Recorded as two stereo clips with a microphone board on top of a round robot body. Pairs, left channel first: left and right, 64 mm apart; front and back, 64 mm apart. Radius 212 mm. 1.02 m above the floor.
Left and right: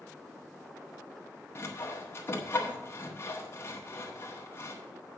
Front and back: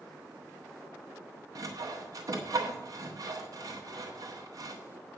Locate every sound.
1.6 s sawing: 145° left, 1.3 m